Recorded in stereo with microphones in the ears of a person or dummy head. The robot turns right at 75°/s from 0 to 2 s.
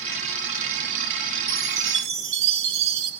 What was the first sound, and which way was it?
A chime, 120° right.